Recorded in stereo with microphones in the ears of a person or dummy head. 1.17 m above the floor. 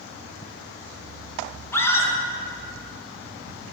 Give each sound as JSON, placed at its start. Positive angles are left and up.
{"t": 1.7, "sound": "a scream", "side_deg": 20, "distance_m": 1.5}